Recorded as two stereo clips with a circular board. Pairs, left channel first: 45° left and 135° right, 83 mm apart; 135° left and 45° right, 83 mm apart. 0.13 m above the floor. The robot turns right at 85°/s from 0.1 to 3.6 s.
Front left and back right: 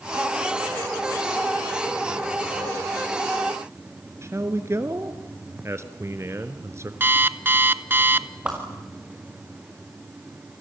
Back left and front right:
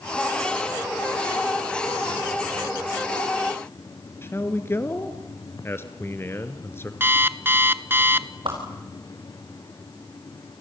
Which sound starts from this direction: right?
An alarm clock, at 7.0 s.